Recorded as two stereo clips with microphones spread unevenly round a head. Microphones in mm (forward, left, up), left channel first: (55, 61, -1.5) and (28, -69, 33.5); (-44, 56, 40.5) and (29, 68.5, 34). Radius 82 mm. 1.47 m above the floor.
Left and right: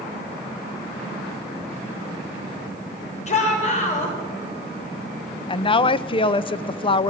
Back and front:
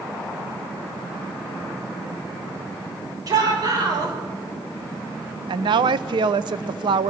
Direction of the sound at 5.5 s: 20° left.